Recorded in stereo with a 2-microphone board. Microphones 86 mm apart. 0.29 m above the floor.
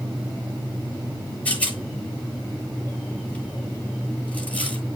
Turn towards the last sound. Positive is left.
turn(degrees=15)  # may be behind; listen again after turning